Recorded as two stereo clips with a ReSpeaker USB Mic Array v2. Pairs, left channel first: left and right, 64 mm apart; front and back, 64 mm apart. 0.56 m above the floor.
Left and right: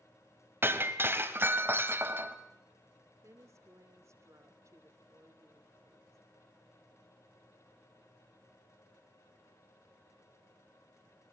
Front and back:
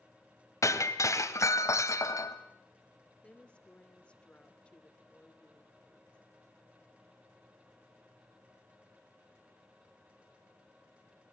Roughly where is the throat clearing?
No throat clearing in this recording.